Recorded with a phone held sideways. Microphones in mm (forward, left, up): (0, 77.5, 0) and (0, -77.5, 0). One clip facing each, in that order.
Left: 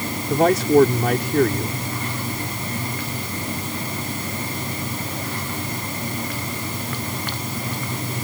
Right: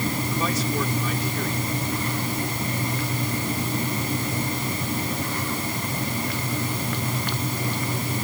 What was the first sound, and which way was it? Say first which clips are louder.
A man speaking: left 16 dB; 65° left (ahead or behind).